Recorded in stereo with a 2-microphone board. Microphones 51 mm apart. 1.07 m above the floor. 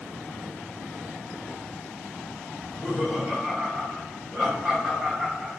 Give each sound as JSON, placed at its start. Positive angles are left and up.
{"t": 2.6, "sound": "laughter", "side_deg": 10, "distance_m": 3.5}